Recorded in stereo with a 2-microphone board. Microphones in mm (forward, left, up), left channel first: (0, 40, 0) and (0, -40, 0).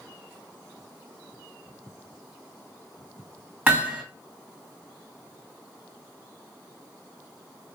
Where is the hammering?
20° right (ahead or behind), 1.5 m.